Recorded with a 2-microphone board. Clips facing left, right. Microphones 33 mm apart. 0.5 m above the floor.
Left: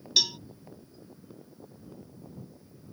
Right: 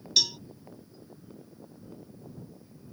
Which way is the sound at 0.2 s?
20° left (ahead or behind).